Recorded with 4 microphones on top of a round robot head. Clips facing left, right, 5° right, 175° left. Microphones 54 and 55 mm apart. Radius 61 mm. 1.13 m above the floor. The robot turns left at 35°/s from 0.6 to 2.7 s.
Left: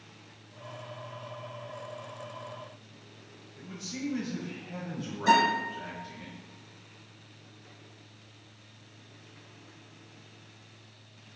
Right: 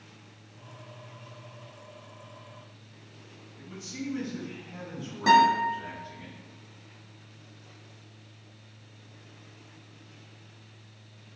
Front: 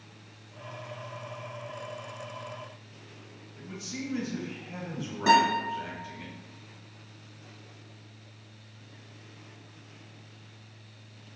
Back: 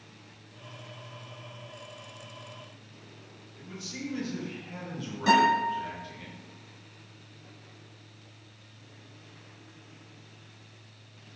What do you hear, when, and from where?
3.6 s a man speaking: 65° left, 1.2 m
5.3 s a guitar: 70° right, 1.4 m